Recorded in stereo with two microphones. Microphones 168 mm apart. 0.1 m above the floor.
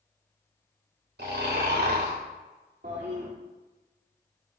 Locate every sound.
1.2 s snoring: 80° right, 3.5 m
2.8 s a toilet flushing: 70° right (ahead or behind), 2.5 m